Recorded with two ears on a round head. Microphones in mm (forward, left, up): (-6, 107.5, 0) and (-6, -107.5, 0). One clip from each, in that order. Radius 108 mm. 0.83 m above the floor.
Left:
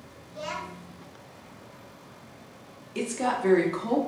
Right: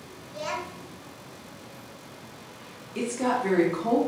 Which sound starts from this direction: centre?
A woman speaking, at 3.0 s.